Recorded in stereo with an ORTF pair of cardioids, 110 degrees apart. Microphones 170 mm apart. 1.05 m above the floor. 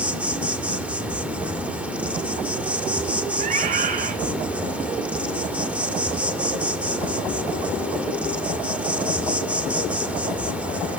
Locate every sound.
0.0 s an insect: 5° right, 2.5 m
3.4 s a scream: 50° right, 5 m